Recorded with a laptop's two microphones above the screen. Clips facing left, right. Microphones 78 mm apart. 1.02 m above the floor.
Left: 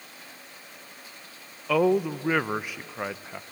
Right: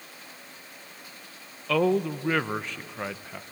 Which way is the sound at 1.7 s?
10° left (ahead or behind).